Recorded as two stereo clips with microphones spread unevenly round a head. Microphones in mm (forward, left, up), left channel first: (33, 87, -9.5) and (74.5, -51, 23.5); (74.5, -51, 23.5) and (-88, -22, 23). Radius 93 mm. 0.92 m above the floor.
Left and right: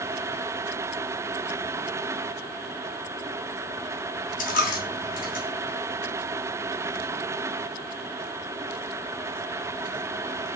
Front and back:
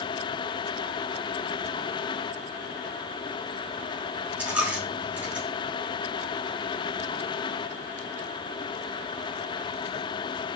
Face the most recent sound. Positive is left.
turn(degrees=90)